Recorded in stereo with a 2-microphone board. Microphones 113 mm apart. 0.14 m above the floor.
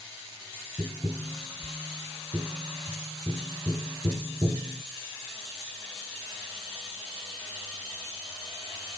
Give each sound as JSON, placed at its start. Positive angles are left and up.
{"t": 0.8, "sound": "tapping", "side_deg": -35, "distance_m": 0.9}